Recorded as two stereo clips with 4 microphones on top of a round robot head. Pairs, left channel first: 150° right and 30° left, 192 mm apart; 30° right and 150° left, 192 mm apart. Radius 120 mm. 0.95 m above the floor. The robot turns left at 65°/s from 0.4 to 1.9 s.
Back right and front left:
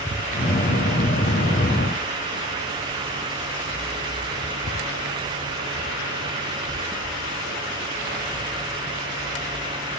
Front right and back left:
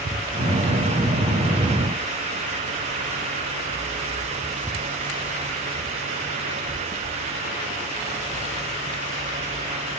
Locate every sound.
Only background noise.